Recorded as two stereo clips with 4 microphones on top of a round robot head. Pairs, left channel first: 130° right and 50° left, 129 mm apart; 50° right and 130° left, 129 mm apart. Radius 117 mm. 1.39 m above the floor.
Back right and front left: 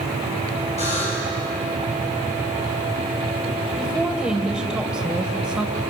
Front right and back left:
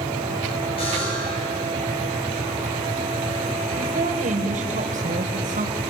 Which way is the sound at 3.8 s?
140° left.